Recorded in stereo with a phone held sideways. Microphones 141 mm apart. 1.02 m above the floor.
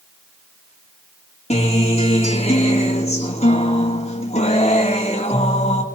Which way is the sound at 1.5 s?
50° left (ahead or behind).